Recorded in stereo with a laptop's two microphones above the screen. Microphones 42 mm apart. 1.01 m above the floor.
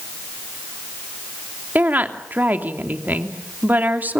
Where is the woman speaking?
45° right (ahead or behind), 3 m.